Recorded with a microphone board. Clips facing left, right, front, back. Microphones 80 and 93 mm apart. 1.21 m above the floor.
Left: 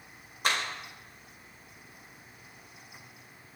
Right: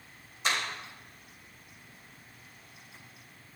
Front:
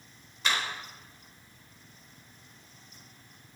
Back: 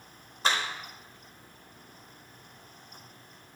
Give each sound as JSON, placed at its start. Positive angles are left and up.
{"t": 0.4, "sound": "a clap", "azimuth_deg": 125, "distance_m": 5.0}